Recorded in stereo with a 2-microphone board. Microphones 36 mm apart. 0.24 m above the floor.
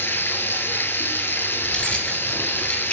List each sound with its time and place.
0.0 s running water: 75° left (ahead or behind), 0.8 m
1.6 s keys jangling: 35° left (ahead or behind), 2.5 m